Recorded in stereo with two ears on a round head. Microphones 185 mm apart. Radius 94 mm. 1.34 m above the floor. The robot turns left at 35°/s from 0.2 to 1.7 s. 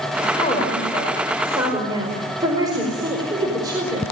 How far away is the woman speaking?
About 5 m.